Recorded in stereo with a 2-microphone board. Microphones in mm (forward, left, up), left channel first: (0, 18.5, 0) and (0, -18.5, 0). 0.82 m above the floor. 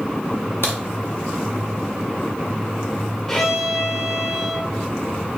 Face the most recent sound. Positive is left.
turn(degrees=10)  # may be behind; listen again after turning